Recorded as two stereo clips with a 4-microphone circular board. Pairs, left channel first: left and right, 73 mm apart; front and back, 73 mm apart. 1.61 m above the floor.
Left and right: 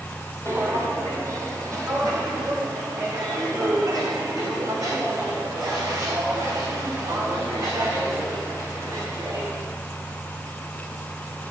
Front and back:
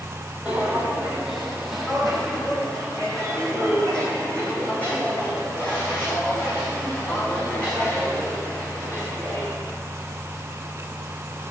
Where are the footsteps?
115° right, 2 m; by 9.5 s 60° right, 6 m.